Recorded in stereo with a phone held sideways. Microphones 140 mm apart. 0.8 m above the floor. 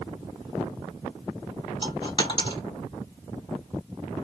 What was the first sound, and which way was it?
A dropped coin, 35° left (ahead or behind).